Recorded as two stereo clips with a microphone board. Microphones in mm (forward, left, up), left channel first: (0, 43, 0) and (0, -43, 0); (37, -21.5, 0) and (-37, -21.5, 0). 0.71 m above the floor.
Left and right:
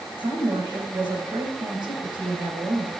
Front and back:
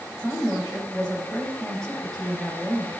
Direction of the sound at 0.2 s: 80° right.